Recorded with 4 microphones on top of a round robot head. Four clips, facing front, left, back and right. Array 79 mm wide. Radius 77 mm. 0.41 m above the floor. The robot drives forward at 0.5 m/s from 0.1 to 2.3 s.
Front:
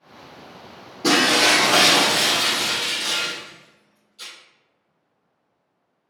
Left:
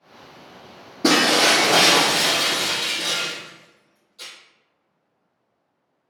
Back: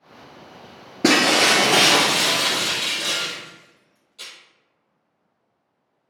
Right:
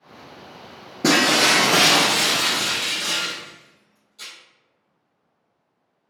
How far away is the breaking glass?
About 0.9 m.